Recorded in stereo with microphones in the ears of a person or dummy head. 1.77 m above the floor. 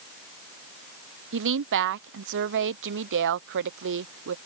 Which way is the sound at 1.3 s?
70° right (ahead or behind).